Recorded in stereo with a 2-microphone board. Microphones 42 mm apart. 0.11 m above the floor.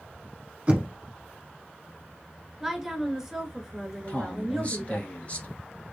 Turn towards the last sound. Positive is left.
turn(degrees=35)  # may be behind; listen again after turning